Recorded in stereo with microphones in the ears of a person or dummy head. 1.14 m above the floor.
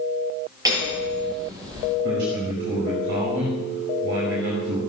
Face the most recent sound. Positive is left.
turn(degrees=-60)  # may be behind; listen again after turning